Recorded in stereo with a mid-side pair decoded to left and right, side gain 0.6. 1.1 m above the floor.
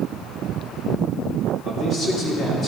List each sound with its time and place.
1.6 s a man speaking: 45° left, 3.5 m; by 2.7 s 35° left, 3.5 m